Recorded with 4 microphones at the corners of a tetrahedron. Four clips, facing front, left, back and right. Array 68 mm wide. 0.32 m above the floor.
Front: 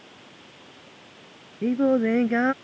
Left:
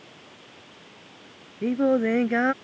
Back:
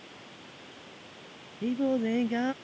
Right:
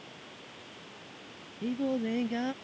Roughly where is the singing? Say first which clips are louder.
Left 9 dB, front 7 dB; ahead left.